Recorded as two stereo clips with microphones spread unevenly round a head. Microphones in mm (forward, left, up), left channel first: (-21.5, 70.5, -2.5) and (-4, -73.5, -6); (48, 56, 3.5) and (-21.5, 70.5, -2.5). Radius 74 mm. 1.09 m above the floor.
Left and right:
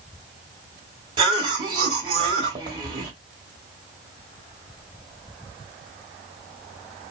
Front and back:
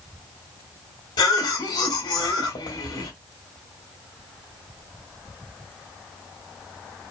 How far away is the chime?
No chime in this recording.